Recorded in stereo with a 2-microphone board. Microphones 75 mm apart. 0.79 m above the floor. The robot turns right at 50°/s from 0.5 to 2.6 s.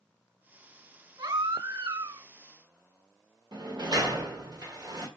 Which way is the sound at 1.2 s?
105° right.